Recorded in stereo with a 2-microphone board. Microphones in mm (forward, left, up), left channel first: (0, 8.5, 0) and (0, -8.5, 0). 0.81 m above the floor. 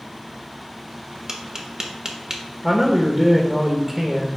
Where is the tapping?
35° right (ahead or behind), 1.0 m.